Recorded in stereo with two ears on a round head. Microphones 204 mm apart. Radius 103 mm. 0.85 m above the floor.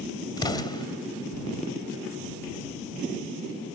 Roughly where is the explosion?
Centre.